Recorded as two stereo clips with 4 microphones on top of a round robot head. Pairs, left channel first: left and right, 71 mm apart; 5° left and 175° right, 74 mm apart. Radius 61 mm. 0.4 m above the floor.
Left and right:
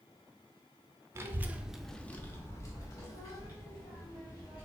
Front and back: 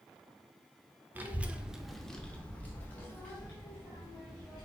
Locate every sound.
1.1 s a child speaking: 120° right, 0.6 m; by 4.7 s 65° left, 1.7 m